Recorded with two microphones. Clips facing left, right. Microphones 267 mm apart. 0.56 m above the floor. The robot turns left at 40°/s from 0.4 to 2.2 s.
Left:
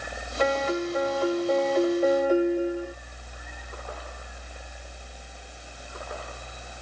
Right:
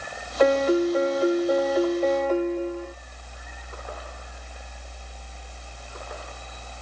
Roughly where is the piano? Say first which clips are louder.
Right 7 dB; behind right.